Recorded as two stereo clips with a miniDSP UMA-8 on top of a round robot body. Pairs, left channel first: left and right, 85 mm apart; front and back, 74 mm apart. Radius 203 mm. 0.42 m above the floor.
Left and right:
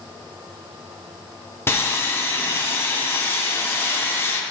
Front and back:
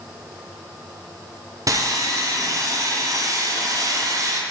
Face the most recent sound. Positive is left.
turn(degrees=150)